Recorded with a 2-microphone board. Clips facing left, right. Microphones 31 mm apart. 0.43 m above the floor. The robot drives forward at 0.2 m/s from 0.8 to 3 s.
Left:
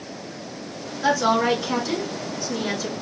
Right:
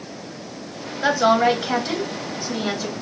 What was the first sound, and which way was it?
A woman speaking, 40° right (ahead or behind).